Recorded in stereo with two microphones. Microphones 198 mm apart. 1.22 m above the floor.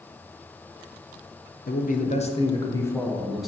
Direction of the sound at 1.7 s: 50° left (ahead or behind).